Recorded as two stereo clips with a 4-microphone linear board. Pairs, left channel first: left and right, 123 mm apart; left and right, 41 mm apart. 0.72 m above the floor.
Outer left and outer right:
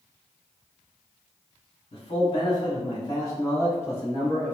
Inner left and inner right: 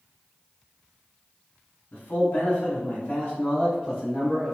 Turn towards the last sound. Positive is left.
turn(degrees=15)  # may be behind; listen again after turning